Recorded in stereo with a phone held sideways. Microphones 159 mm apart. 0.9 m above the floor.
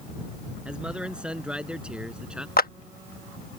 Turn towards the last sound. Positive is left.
turn(degrees=70)  # may be behind; listen again after turning